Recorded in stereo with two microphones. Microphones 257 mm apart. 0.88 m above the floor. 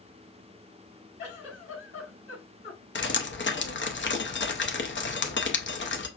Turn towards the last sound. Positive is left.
turn(degrees=50)  # may be behind; listen again after turning